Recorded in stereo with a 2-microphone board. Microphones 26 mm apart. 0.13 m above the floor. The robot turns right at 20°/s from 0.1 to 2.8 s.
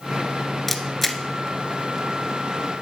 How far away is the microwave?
No microwave in this recording.